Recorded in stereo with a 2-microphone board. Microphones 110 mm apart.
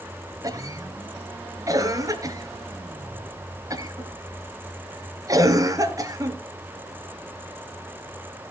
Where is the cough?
30° right (ahead or behind), 2 m.